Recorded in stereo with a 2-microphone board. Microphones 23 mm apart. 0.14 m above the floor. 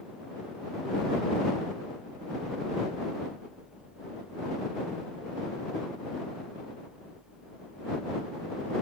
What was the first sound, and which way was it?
Only background noise.